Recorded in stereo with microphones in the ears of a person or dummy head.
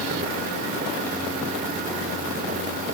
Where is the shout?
I don't hear a shout.